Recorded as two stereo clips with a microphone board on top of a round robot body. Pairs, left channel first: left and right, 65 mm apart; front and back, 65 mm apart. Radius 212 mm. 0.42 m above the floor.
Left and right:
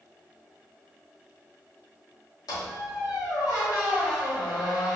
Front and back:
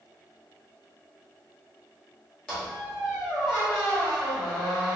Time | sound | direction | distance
2.5 | a squeak | 80° left | 1.0 m